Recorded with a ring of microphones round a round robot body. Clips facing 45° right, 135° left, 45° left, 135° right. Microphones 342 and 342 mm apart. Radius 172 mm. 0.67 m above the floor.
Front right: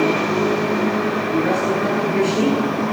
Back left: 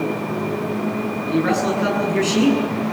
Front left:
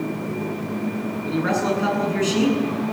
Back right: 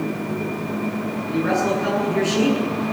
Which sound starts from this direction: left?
A man speaking, at 1.2 s.